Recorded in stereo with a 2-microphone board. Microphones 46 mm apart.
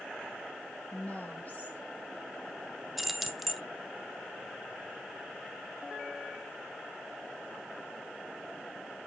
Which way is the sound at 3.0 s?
Centre (ahead or behind).